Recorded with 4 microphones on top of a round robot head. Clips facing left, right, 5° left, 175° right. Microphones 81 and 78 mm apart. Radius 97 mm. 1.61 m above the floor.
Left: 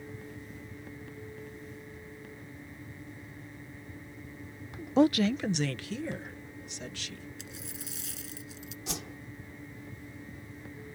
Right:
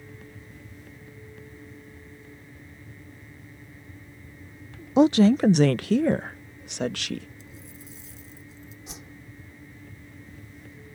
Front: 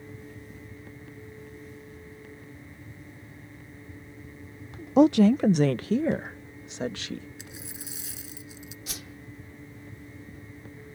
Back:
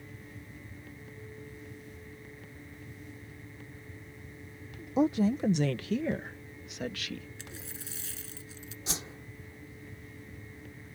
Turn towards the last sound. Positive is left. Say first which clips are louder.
# left 8 dB, back 6 dB
turn(degrees=130)